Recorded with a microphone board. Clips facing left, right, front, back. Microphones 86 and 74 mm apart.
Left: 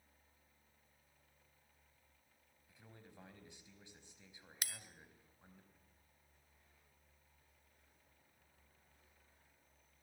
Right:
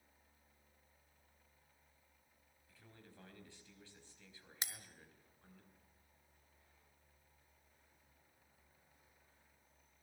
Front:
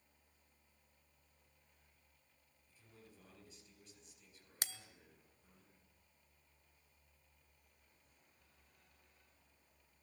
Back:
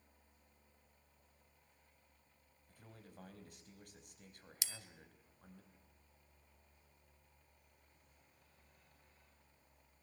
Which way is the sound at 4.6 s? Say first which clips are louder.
Right 1 dB, front 3 dB; 30° right.